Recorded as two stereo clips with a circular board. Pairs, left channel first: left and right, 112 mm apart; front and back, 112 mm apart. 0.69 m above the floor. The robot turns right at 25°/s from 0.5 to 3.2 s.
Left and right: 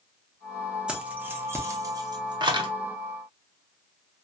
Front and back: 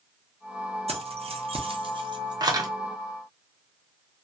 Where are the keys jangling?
170° right, 0.5 m; by 2.7 s 125° right, 0.5 m.